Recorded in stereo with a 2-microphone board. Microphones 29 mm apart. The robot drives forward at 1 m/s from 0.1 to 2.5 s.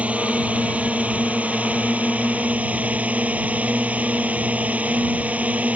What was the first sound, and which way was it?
A drone, 55° right (ahead or behind).